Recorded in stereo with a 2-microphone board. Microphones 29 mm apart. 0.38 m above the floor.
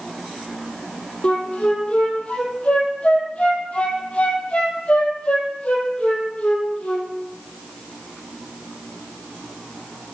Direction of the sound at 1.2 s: 45° left (ahead or behind).